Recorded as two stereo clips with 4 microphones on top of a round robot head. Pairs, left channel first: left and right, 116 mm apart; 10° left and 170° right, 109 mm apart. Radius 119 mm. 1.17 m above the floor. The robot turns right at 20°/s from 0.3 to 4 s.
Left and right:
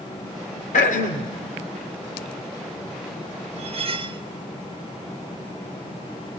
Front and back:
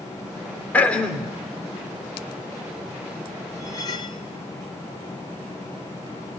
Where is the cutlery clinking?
60° right, 1.1 m; by 4.2 s 50° right, 1.1 m.